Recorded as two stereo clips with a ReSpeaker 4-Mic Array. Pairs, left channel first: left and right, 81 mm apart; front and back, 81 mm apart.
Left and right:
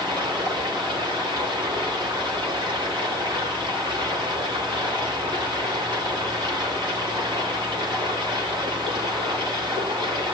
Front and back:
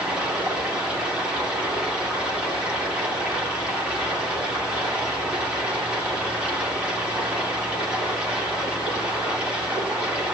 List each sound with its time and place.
0.0 s running water: 105° right, 8 m